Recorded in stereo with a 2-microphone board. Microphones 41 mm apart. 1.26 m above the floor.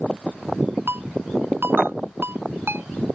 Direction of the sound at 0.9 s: 80° right.